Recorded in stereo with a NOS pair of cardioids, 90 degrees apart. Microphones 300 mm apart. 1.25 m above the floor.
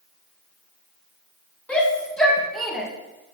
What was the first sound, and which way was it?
A shout, 5° left.